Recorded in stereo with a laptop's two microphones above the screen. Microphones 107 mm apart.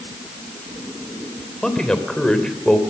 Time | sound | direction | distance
1.6 | a man speaking | 5° left (ahead or behind) | 3 m